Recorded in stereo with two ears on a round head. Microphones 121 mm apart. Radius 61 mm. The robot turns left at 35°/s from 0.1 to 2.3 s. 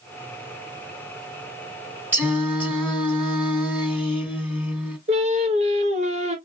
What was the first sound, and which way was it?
Singing, 15° right (ahead or behind).